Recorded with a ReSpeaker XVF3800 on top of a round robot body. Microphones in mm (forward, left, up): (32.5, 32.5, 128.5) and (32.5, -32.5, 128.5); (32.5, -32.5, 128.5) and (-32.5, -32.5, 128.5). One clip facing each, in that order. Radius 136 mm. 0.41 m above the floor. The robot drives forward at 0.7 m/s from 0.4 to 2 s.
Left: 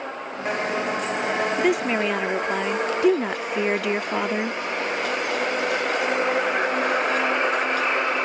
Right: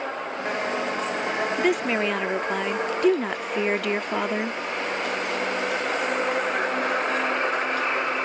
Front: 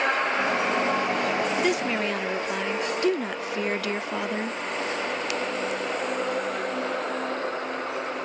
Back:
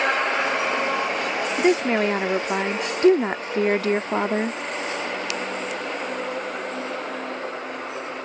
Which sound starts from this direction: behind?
A woman speaking, at 1.6 s.